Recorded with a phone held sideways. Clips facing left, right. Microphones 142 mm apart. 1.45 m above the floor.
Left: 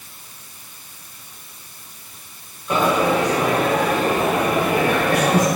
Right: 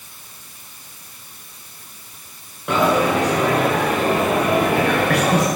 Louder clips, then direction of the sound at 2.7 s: Right 1 dB; 65° right (ahead or behind).